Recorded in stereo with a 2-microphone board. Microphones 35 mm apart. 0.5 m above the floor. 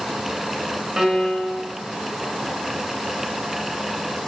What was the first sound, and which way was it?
A piano, 15° right (ahead or behind).